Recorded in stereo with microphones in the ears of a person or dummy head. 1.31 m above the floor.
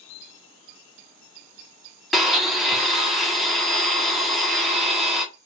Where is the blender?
5° left (ahead or behind), 0.6 m.